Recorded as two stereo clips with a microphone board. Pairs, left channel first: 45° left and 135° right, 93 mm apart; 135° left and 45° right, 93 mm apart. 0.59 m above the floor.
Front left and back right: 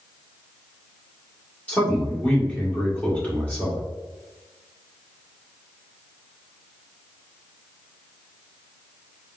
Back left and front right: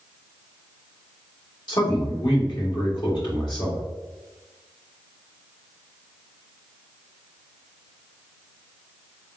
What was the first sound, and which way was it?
A man speaking, 115° left.